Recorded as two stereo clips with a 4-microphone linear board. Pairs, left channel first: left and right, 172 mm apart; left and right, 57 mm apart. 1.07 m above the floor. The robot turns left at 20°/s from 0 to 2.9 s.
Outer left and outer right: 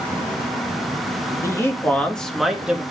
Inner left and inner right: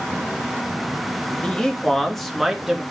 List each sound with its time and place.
1.4 s a man speaking: 20° left (ahead or behind), 1.4 m; by 2.8 s 10° right (ahead or behind), 1.4 m